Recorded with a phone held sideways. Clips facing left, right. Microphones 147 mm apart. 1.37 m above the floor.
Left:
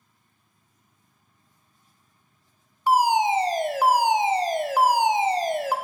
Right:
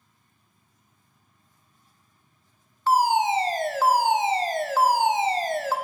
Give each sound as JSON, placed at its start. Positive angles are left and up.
{"t": 2.9, "sound": "a fire alarm", "side_deg": 15, "distance_m": 0.8}